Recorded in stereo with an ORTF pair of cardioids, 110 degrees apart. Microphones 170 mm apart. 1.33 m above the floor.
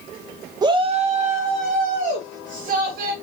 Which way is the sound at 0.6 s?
25° right.